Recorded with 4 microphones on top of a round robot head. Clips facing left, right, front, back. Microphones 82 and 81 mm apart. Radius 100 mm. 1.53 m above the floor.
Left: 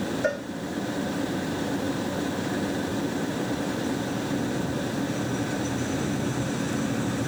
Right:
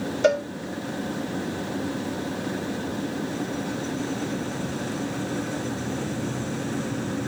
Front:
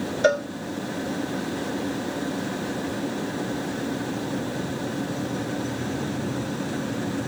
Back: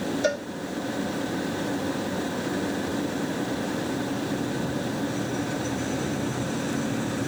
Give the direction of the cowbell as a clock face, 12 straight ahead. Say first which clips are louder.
Right 9 dB, front 8 dB; 2 o'clock.